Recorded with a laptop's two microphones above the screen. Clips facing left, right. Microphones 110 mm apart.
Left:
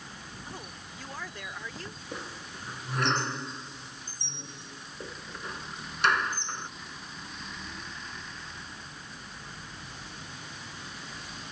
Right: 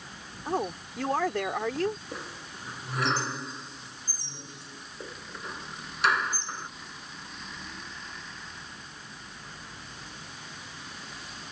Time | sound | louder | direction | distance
0.5 | a woman speaking | right 17 dB | 75° right (ahead or behind) | ?
2.1 | a squeak | even | centre (ahead or behind) | ?